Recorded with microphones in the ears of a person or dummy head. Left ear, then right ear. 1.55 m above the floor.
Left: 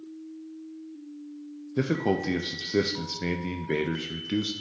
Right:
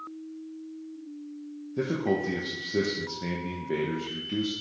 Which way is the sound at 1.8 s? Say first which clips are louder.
Left 1 dB; 70° left (ahead or behind).